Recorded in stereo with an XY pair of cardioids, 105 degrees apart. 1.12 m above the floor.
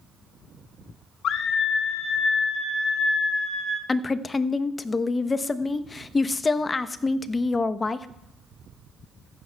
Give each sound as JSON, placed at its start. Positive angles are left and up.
{"t": 1.2, "sound": "a scream", "azimuth_deg": 65, "distance_m": 1.2}
{"t": 3.9, "sound": "a woman speaking", "azimuth_deg": 25, "distance_m": 0.8}